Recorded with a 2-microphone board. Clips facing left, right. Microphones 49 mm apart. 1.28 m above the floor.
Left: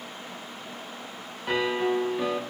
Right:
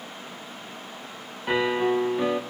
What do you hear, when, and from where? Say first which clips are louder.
1.5 s a piano: right 2 dB; 15° right (ahead or behind), 1.0 m